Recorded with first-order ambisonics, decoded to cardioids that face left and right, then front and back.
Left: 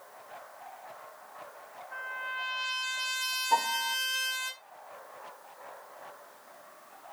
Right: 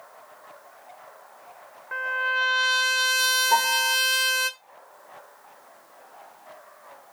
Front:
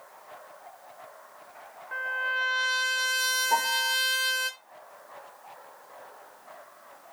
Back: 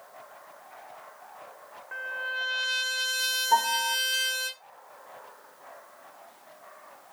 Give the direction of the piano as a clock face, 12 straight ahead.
2 o'clock.